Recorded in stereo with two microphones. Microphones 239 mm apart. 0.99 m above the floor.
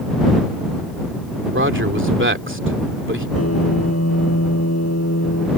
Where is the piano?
90° left.